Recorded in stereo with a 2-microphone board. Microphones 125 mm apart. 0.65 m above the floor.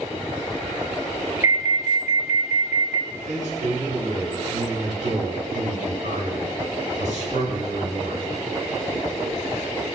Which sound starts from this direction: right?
A man speaking, at 3.1 s.